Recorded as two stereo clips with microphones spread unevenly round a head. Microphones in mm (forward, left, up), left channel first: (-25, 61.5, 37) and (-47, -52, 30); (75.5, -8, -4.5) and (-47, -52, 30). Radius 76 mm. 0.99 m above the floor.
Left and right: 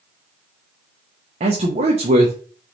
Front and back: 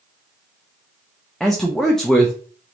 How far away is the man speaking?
About 0.8 m.